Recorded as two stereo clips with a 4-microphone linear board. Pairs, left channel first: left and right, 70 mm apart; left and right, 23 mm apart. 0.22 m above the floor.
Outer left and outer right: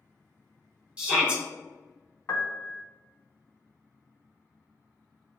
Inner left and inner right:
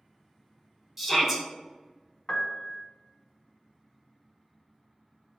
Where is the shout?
15° right (ahead or behind), 1.1 m.